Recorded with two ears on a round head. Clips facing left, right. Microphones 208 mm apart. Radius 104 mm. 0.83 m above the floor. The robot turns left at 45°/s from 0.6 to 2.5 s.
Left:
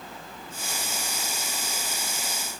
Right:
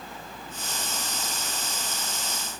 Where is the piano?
No piano in this recording.